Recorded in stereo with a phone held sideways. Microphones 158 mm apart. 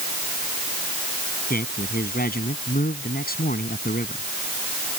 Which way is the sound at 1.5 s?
70° left (ahead or behind).